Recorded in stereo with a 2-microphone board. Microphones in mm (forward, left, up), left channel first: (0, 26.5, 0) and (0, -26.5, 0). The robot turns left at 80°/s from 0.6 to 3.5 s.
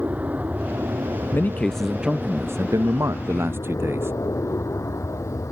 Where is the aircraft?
30° right; by 5.5 s 95° left.